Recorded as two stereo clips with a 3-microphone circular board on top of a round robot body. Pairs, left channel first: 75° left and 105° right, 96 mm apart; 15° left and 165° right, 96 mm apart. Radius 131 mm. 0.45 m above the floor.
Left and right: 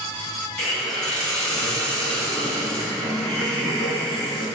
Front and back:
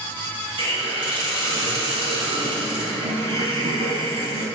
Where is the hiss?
155° left, 2.0 m.